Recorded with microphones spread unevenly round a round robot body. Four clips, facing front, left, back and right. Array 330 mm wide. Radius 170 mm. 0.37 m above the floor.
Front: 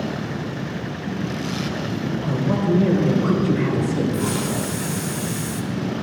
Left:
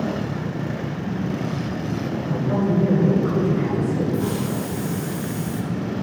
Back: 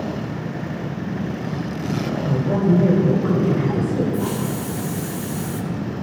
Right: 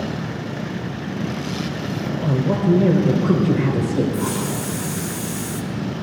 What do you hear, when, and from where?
2.2 s a man speaking: 90° right, 1.3 m
4.1 s a hiss: 105° right, 0.7 m